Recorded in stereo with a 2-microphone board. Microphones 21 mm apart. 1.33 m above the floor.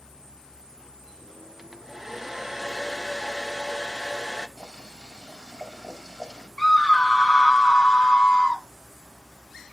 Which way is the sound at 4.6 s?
20° left (ahead or behind).